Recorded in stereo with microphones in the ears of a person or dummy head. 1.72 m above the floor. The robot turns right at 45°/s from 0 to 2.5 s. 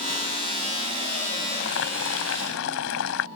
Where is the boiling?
60° left; by 3.3 s 100° left.